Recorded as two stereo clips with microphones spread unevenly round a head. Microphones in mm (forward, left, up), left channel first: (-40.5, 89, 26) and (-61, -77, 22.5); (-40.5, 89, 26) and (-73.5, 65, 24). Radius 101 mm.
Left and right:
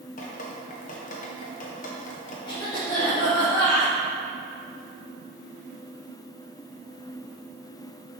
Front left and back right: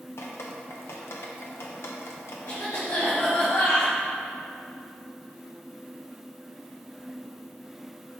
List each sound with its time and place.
0.2 s dripping: 35° left, 0.7 m
2.5 s a cough: 10° left, 2.0 m